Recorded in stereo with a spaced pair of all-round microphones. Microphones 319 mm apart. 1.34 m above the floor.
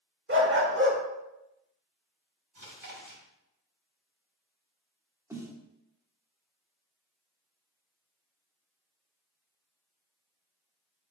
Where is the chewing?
70° right (ahead or behind), 1.9 m.